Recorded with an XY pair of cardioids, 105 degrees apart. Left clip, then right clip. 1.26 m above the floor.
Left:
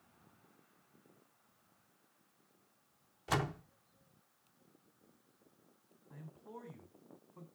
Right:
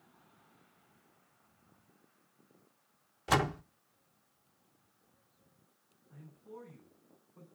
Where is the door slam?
35° right, 0.6 m.